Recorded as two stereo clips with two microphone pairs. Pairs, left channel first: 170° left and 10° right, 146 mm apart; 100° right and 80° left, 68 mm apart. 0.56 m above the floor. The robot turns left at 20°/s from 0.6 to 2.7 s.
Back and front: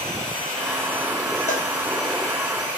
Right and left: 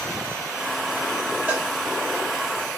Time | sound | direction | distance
1.5 | a cowbell | 145° left | 1.3 m